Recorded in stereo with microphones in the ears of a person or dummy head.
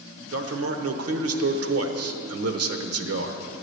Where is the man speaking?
65° right (ahead or behind), 1.0 m.